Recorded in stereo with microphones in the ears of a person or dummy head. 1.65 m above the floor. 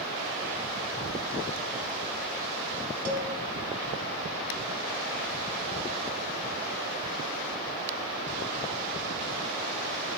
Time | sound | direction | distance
3.0 | a cowbell | 50° right (ahead or behind) | 1.2 m